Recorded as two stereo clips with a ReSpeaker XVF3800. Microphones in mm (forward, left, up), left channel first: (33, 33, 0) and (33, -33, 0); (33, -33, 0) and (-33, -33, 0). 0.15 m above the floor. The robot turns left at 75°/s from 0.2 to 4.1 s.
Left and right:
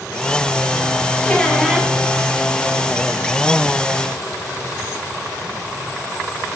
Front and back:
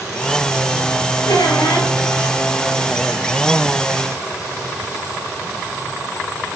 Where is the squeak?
25° left, 1.4 m; by 1.9 s 25° right, 1.4 m.